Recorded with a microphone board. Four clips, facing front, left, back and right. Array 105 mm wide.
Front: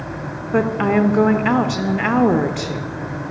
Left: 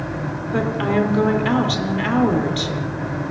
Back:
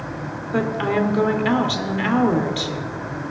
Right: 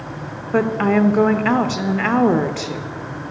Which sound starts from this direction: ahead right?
A woman speaking, at 0.5 s.